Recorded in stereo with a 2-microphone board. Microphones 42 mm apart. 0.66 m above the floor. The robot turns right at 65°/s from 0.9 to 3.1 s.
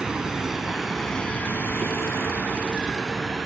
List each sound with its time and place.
0.0 s a vehicle: 20° right (ahead or behind); by 3.5 s 5° right (ahead or behind)